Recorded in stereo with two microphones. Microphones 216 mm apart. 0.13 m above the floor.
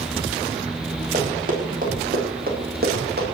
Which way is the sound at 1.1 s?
40° right (ahead or behind).